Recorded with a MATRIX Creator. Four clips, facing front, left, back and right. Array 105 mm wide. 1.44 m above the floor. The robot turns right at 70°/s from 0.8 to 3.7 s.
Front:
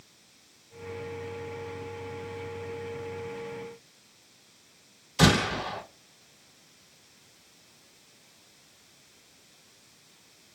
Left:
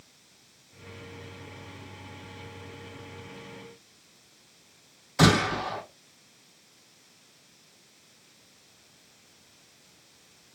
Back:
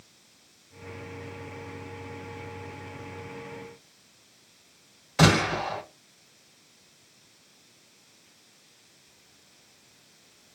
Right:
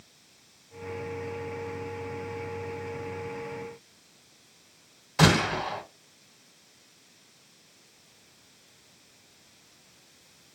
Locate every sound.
5.2 s a gunshot: 165° right, 1.7 m